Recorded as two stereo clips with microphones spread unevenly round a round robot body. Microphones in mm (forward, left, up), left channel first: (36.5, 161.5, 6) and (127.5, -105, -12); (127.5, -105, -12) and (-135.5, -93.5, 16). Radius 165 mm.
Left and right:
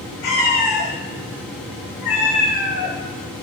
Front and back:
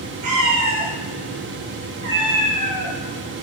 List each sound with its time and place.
0.2 s a cat meowing: 140° left, 4.5 m; by 2.9 s 120° left, 4.5 m